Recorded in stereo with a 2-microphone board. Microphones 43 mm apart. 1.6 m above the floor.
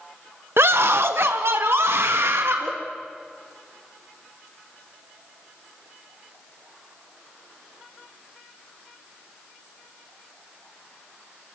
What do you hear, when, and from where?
0.6 s a scream: 70° right (ahead or behind), 1.1 m; by 2.7 s 80° right, 3 m